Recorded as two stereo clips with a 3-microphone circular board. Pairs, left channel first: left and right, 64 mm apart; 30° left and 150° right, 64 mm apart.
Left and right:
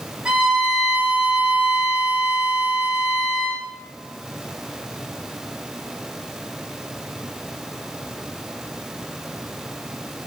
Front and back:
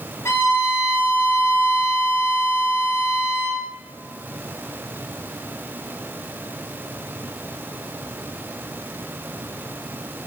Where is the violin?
15° right, 5.5 m.